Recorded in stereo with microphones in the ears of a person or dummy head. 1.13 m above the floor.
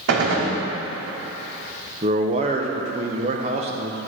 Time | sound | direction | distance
0.1 | a gunshot | 60° right (ahead or behind) | 1.3 m
2.0 | a man speaking | 30° right (ahead or behind) | 0.7 m